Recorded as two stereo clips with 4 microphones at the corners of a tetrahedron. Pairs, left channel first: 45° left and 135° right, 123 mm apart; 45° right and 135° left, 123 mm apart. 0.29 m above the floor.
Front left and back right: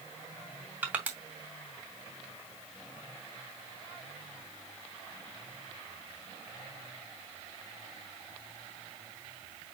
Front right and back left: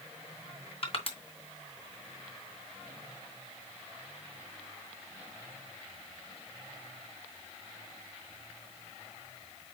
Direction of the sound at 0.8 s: 60° right.